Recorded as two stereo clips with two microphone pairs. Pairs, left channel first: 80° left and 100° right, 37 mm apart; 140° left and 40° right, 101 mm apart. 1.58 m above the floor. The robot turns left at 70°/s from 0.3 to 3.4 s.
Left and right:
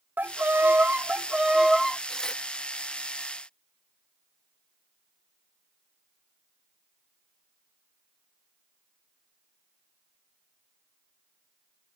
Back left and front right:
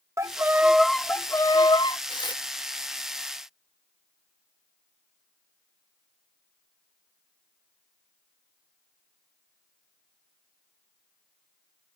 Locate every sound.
0.2 s a violin: 90° right; by 2.0 s 155° left
2.1 s tearing paper: 150° left; by 2.4 s 125° left